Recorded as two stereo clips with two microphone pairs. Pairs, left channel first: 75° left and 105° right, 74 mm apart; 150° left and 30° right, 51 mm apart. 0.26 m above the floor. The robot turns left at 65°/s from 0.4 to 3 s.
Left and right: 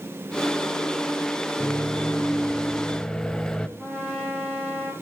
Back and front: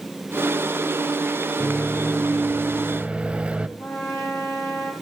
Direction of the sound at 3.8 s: 170° left.